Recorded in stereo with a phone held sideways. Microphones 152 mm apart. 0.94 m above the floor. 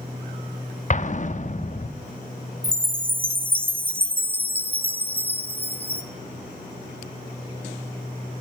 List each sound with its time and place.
0.9 s an explosion: 50° left (ahead or behind), 1.1 m
2.6 s a chime: 10° right (ahead or behind), 1.5 m